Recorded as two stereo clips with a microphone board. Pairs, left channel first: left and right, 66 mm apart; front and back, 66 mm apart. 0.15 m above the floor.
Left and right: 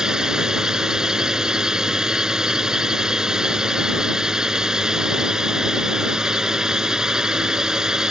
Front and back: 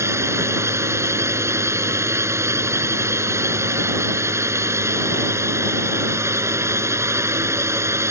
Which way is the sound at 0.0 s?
165° right.